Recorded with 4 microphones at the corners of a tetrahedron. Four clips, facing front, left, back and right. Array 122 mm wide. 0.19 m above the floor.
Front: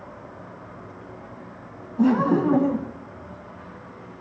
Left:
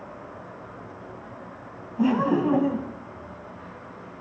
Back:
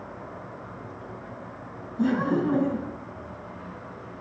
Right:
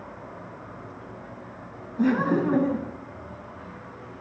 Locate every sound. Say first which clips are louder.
2.0 s laughter: left 1 dB, front 5 dB; 20° left, 1.9 m